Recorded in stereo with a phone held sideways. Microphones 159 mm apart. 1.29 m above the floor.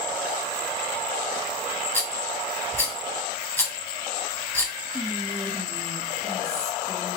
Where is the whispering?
25° left (ahead or behind), 1.6 m.